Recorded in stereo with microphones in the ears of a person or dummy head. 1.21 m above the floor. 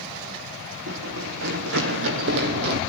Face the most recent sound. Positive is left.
turn(degrees=-60)  # may be behind; listen again after turning